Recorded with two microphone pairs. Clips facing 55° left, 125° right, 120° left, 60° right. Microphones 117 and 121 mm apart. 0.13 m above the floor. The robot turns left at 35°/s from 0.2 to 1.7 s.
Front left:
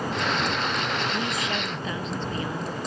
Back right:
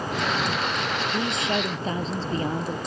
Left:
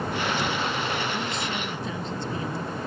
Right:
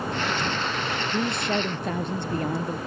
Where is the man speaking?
55° right; by 2.8 s 75° right.